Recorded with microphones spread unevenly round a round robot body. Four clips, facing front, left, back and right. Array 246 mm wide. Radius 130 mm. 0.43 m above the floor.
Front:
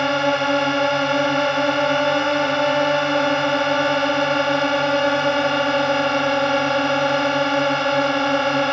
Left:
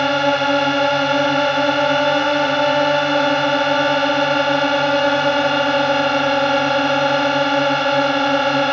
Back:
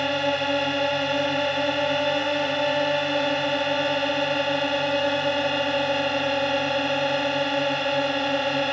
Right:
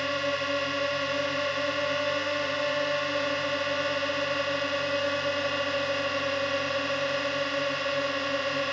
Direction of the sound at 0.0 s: 60° left.